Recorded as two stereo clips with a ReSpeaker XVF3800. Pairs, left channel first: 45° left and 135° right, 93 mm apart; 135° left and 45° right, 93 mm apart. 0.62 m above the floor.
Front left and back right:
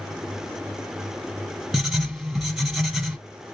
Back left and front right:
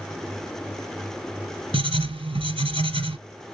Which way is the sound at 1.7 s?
45° right.